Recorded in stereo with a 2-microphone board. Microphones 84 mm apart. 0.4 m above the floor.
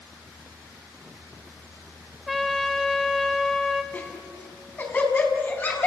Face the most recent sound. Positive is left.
turn(degrees=25)  # may be behind; listen again after turning